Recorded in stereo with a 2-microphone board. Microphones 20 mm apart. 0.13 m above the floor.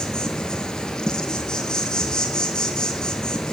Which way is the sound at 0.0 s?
45° left (ahead or behind).